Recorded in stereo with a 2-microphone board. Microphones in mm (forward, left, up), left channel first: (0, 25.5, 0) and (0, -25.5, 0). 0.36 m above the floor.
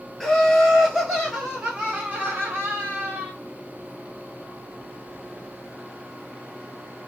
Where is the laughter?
10° left (ahead or behind), 1.6 m; by 3.3 s 50° right (ahead or behind), 1.3 m.